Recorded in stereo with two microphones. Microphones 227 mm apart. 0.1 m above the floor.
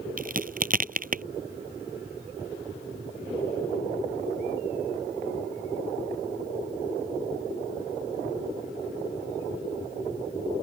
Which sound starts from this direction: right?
A crack, at 0.2 s.